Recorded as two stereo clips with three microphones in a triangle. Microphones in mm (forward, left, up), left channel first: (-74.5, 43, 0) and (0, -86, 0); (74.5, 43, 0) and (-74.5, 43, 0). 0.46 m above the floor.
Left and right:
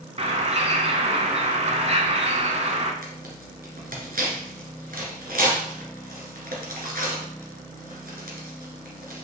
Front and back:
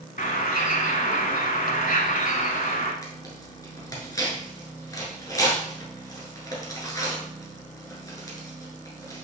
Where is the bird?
20° right, 1.0 m.